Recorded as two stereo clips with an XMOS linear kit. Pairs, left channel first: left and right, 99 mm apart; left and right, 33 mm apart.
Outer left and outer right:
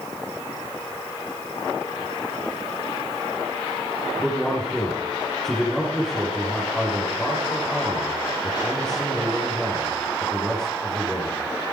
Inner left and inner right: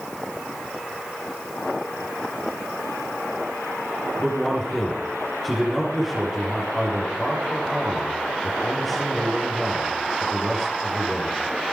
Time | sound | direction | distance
4.2 | a man speaking | 5° left (ahead or behind) | 5 m